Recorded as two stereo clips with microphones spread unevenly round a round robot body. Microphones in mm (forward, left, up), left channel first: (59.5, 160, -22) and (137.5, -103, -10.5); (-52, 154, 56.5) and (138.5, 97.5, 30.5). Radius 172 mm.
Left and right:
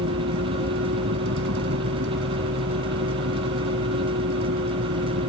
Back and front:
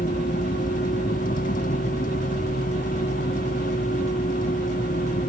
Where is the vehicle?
130° right.